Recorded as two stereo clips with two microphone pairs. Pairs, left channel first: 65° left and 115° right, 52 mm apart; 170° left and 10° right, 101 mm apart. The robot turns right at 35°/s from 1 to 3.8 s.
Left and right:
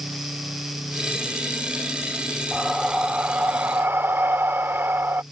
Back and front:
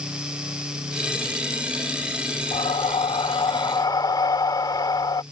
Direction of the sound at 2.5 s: 165° left.